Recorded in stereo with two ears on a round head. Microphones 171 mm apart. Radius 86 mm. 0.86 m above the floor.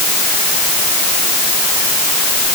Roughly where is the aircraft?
No aircraft in this recording.